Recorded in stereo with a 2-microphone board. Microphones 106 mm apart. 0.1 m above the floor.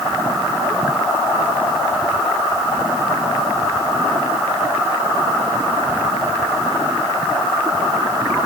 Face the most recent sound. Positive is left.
No sound to turn to.